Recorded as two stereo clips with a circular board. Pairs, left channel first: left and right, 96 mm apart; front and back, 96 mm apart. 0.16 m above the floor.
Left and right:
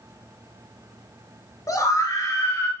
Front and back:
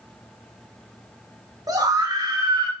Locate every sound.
1.7 s a scream: 140° left, 2 m; by 2.7 s 145° left, 2.5 m